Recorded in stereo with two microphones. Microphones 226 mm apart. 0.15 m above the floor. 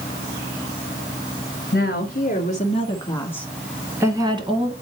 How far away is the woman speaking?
About 1.7 m.